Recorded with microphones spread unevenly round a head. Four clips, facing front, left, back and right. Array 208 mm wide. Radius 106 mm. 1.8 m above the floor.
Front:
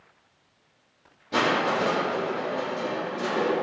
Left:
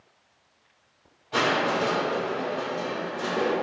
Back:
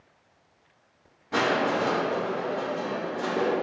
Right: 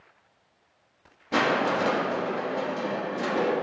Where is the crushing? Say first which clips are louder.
Even, front 1 dB; 85° right, 4 m.